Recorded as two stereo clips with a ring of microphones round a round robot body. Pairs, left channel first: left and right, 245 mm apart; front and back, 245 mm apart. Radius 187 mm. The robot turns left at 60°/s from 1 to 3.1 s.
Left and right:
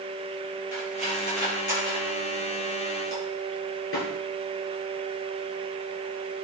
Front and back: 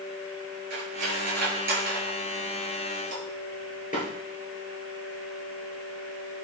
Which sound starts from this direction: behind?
Cutlery clinking, at 0.7 s.